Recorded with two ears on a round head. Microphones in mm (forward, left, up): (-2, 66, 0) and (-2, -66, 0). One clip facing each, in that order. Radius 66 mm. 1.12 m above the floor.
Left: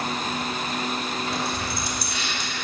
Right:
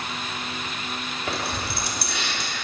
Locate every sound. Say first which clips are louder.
1.3 s keys jangling: left 1 dB; 55° right (ahead or behind), 1.4 m